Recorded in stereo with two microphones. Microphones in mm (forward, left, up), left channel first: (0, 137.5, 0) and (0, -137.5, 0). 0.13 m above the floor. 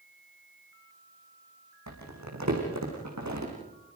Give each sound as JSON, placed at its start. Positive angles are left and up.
{"t": 1.9, "sound": "crumpling", "side_deg": -80, "distance_m": 7.0}